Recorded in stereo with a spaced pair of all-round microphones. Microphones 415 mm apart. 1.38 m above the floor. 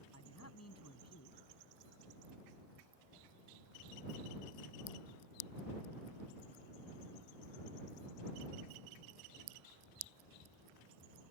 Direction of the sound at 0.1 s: 35° left (ahead or behind).